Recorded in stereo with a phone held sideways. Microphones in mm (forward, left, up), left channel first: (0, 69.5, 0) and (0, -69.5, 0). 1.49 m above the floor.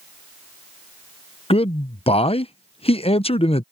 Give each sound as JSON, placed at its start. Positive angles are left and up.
{"t": 1.5, "sound": "a man speaking", "side_deg": 45}